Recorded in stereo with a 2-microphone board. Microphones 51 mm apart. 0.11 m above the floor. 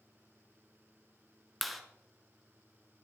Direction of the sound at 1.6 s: Centre (ahead or behind).